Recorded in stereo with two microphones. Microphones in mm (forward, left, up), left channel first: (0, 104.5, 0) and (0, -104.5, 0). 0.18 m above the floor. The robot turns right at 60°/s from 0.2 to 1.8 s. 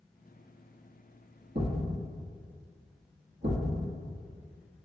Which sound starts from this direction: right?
A thud, at 1.6 s.